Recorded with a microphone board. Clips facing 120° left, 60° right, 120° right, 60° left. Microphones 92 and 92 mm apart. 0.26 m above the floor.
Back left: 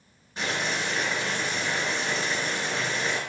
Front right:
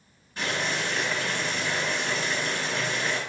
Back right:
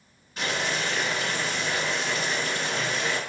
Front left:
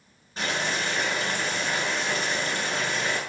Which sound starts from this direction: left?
Boiling, at 0.4 s.